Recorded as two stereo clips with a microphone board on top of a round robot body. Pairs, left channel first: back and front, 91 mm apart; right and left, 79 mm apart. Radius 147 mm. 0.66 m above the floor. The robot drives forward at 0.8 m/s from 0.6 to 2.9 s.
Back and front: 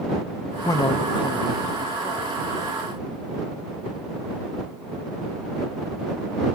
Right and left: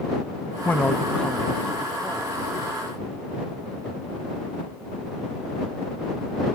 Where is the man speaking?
145° right; by 2.9 s 175° right.